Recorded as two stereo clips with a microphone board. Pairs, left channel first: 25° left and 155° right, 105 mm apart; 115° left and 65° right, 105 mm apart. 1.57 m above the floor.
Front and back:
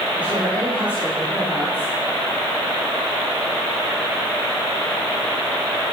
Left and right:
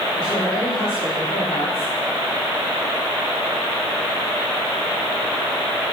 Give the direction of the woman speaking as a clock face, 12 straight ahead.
8 o'clock.